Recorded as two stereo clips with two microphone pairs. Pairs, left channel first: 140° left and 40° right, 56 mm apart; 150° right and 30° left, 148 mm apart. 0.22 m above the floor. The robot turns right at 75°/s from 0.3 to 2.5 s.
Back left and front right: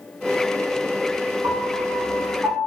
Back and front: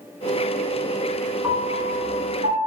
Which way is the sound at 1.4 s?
45° right.